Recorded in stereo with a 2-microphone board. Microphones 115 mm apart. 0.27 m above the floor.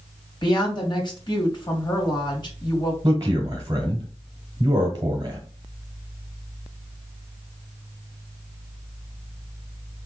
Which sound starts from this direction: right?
A man speaking, at 3.0 s.